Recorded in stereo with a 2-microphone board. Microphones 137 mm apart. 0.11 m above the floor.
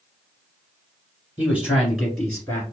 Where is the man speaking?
10° right (ahead or behind), 1.7 m; by 2.6 s 10° left (ahead or behind), 1.5 m.